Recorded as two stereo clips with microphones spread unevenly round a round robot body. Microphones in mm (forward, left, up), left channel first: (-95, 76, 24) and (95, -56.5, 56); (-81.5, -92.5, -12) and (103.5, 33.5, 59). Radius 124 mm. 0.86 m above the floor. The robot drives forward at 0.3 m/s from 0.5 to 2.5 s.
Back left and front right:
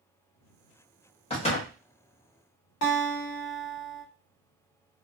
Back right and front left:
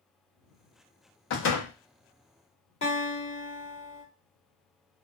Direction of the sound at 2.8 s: 155° left.